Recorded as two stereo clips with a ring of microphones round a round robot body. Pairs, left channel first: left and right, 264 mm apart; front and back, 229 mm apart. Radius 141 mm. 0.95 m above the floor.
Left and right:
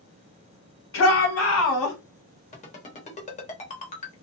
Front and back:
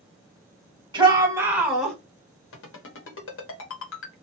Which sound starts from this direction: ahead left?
A ringtone, at 2.5 s.